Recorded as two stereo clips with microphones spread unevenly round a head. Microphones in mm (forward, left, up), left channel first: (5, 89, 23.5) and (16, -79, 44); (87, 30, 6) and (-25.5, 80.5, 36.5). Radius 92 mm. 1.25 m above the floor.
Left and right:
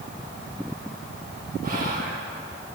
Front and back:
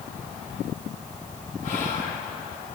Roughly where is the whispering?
Ahead right.